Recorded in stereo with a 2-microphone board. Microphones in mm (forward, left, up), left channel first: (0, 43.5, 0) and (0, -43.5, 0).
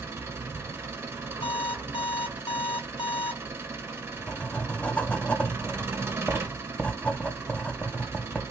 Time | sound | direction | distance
0.0 | an engine running | 30° right (ahead or behind) | 1.0 m
1.4 | an alarm clock | 70° left (ahead or behind) | 1.5 m
3.5 | writing | 15° left (ahead or behind) | 0.5 m